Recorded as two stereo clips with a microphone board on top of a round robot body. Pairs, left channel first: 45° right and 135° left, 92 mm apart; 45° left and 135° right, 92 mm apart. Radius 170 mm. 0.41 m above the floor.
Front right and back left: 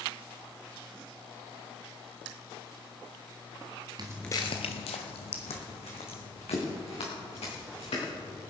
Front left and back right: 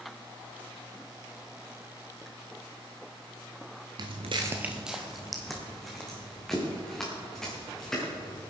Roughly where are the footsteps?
Behind.